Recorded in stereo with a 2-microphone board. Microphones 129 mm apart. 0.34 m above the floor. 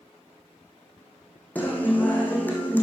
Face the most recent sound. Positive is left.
turn(degrees=15)  # may be behind; listen again after turning